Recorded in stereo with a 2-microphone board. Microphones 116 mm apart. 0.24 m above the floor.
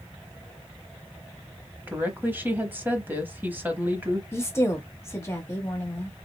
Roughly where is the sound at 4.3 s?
Left.